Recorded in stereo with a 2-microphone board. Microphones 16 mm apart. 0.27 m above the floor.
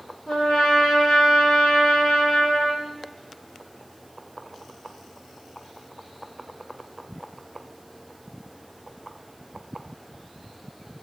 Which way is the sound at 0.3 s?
75° left (ahead or behind).